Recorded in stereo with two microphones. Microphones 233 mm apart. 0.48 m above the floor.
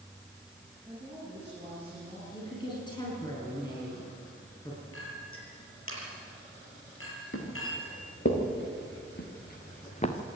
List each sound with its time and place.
0.8 s a woman speaking: 5° right (ahead or behind), 9 m
2.3 s a woman speaking: 20° left (ahead or behind), 6 m
4.9 s a clink: 65° left (ahead or behind), 6.5 m
7.3 s footsteps: 60° left (ahead or behind), 5 m; by 10.2 s 25° left (ahead or behind), 2 m